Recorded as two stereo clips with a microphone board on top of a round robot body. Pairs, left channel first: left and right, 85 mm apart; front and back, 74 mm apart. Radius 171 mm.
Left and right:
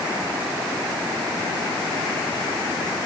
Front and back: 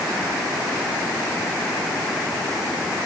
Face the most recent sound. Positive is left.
No sound to turn to.